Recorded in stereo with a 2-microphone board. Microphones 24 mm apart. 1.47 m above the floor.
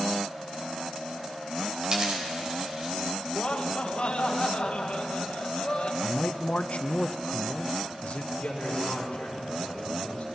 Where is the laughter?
50° left (ahead or behind), 1.9 m.